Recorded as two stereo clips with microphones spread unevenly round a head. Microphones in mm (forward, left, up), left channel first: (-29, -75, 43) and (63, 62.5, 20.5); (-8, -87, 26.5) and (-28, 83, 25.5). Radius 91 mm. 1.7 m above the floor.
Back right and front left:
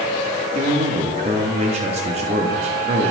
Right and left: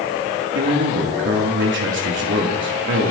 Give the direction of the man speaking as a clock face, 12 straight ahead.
8 o'clock.